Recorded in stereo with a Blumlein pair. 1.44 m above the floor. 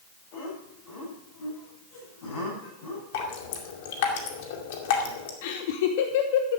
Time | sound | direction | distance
0.3 | laughter | 50° left | 9 m
3.1 | dripping | 50° left | 2 m
5.4 | laughter | 50° left | 1.2 m